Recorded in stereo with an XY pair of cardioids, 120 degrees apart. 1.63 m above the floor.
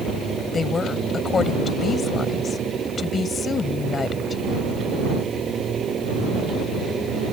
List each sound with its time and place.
0.5 s a woman speaking: 30° left